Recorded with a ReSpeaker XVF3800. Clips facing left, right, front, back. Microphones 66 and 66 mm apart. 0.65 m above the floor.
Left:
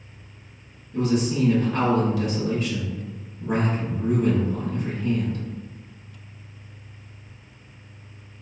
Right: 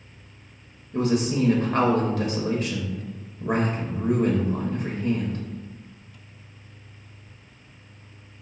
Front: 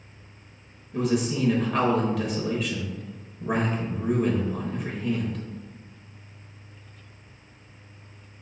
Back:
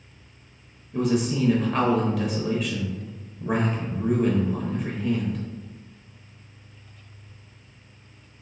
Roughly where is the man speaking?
Right.